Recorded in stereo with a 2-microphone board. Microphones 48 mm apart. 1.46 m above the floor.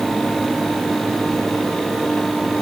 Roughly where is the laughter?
I don't hear laughter.